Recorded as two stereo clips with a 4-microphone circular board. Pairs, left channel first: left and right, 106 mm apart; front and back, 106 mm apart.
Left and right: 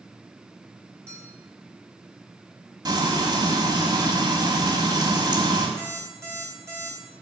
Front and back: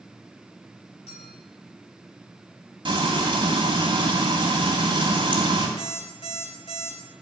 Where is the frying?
140° right, 2.5 m.